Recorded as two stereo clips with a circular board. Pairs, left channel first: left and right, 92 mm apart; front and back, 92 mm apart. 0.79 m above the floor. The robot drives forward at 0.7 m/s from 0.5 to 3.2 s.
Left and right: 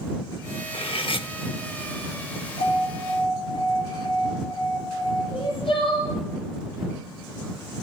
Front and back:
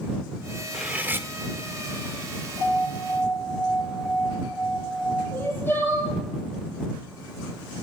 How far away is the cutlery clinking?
About 1.0 m.